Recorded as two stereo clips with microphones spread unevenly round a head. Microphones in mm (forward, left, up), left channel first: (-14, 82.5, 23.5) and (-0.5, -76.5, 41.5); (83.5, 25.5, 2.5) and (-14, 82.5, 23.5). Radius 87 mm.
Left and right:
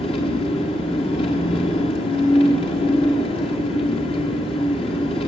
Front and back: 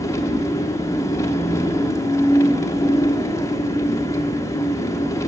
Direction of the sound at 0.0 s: 35° left.